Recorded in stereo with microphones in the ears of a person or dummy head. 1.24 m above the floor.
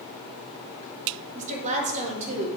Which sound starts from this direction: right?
A woman speaking, at 1.4 s.